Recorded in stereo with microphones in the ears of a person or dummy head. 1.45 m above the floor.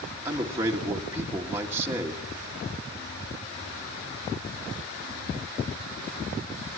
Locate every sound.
0.2 s a man speaking: 5° right (ahead or behind), 1.9 m